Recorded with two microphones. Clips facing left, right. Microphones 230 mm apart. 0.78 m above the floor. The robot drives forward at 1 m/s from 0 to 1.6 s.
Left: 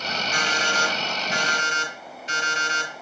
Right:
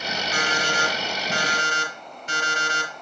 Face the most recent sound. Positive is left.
turn(degrees=-55)  # may be behind; listen again after turning